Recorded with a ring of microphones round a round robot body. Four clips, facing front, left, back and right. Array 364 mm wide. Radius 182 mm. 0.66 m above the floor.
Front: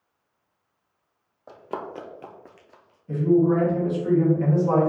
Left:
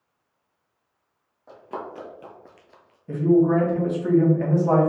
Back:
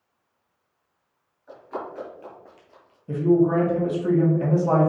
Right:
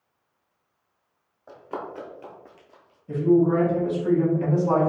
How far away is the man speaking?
About 1.3 m.